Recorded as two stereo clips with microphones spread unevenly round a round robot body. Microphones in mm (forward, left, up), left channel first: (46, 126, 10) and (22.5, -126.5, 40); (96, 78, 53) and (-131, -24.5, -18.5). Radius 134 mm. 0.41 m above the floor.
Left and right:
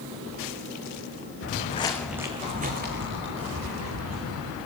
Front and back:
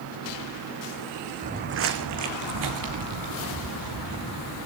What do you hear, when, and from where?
1.4 s footsteps: 135° left, 1.5 m; by 4.5 s 130° right, 4.5 m